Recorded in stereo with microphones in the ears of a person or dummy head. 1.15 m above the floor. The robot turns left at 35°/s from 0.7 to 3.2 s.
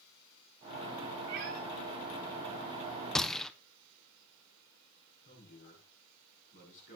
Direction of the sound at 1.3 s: 55° right (ahead or behind).